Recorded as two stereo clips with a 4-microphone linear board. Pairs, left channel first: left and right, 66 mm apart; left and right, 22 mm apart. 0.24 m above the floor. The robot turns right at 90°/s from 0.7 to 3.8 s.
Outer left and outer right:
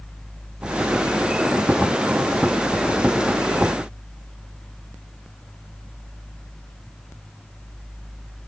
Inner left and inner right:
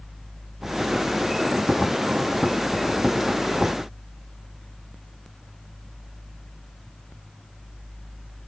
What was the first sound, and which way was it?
Only background noise.